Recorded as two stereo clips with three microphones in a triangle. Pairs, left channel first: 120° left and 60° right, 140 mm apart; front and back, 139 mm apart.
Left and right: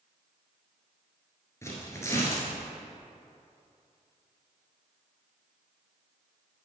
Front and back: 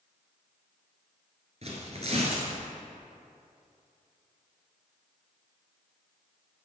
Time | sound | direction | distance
1.6 | tearing paper | 175° right | 1.8 m